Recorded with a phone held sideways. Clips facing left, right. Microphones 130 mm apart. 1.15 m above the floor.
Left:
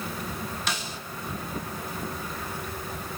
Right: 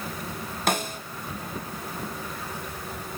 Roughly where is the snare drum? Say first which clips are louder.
Right 7 dB; right.